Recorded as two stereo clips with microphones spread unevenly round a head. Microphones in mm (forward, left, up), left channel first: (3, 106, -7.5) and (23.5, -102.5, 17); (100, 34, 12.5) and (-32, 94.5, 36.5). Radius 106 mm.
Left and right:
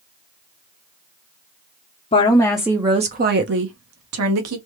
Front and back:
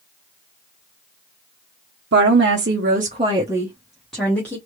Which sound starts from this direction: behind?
A woman speaking, at 2.1 s.